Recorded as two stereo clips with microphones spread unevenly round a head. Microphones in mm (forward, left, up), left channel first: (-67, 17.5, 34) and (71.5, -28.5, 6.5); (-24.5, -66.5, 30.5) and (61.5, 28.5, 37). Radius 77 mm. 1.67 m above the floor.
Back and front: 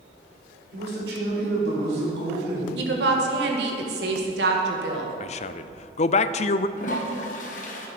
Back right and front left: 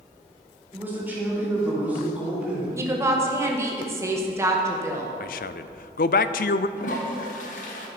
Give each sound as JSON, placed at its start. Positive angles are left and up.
{"t": 0.7, "sound": "a man speaking", "azimuth_deg": -25, "distance_m": 5.0}
{"t": 2.8, "sound": "a woman speaking", "azimuth_deg": -20, "distance_m": 1.7}
{"t": 5.2, "sound": "a man speaking", "azimuth_deg": -155, "distance_m": 0.5}
{"t": 6.8, "sound": "a toilet flushing", "azimuth_deg": -165, "distance_m": 1.6}